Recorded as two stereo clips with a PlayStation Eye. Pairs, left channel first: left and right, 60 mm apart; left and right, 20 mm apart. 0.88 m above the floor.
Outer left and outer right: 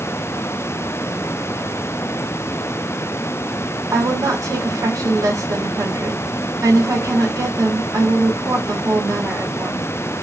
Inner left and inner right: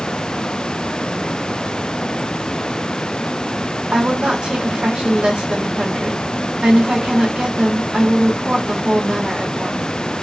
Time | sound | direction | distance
3.9 | a woman speaking | 75° right (ahead or behind) | 1.5 m